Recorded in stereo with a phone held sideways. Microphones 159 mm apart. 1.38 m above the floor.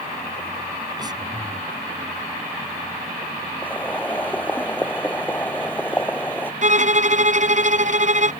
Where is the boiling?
10° left (ahead or behind).